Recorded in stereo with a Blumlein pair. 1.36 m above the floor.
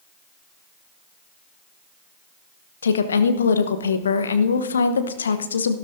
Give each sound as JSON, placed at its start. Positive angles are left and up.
{"t": 2.8, "sound": "a woman speaking", "azimuth_deg": 70, "distance_m": 1.0}